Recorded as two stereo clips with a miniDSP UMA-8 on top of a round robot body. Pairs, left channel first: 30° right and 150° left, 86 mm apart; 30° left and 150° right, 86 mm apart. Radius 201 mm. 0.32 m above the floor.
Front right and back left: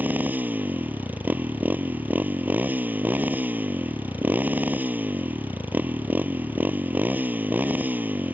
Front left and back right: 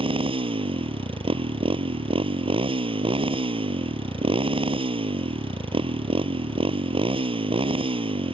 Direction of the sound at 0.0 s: 140° right.